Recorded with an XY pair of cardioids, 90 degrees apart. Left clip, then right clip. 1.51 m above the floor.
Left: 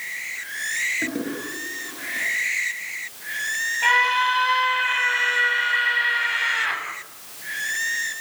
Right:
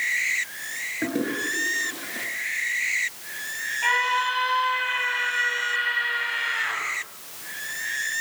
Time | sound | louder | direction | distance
1.0 | a toilet flushing | right 1 dB | 20° right | 8.5 m
3.8 | a scream | left 4 dB | 30° left | 8.5 m